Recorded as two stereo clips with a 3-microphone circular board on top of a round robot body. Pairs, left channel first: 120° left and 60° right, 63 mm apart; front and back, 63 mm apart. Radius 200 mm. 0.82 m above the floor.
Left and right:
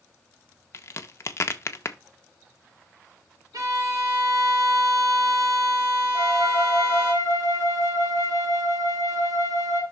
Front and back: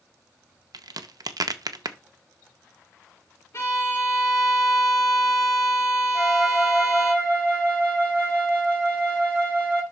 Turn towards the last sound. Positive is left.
turn(degrees=-65)